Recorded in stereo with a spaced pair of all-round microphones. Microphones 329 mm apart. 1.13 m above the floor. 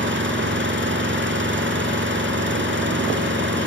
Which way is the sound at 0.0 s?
35° right (ahead or behind).